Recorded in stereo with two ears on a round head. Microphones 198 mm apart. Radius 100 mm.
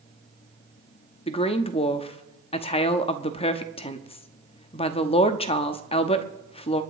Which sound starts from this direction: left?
A woman speaking, at 1.3 s.